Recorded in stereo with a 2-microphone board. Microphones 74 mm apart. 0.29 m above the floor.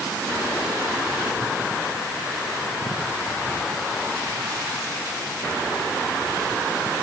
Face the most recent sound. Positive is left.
No sound to turn to.